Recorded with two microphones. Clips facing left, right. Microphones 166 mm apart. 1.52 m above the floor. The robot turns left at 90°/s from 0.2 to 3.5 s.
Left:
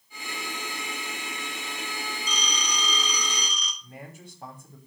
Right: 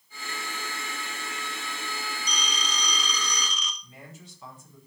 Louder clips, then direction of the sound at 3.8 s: Left 4 dB; 60° left (ahead or behind).